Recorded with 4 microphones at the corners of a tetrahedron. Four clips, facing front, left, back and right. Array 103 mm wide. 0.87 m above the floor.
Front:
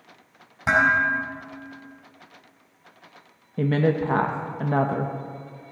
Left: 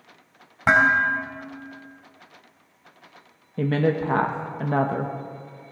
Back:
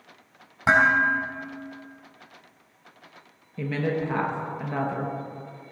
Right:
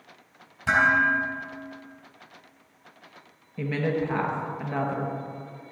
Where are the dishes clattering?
115° left, 4 m.